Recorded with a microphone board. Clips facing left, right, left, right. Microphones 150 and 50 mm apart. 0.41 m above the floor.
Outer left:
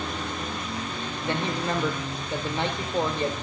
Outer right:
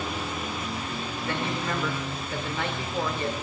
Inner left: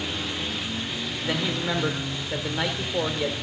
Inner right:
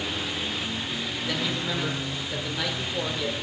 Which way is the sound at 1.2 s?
25° left (ahead or behind).